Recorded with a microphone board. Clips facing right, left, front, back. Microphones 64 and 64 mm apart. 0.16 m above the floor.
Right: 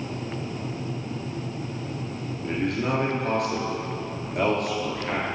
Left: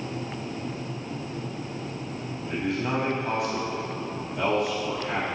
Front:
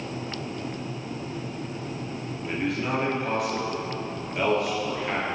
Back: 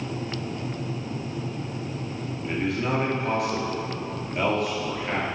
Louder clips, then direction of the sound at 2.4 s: Right 2 dB, back 1 dB; 90° right.